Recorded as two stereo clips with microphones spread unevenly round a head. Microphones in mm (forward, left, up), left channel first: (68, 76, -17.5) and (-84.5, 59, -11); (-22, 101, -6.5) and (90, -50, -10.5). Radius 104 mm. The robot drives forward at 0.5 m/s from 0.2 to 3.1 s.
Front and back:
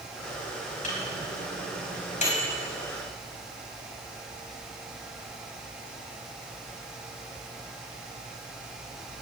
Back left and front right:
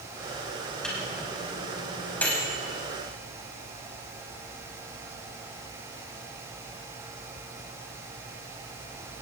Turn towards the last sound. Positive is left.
turn(degrees=50)